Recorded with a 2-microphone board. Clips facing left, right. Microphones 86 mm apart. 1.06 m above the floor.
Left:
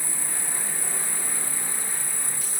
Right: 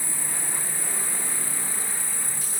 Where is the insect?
55° left (ahead or behind), 2 m.